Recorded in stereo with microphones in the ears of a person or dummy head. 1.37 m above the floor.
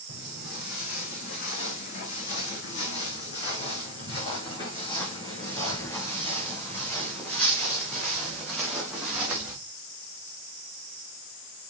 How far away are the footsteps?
About 4.5 m.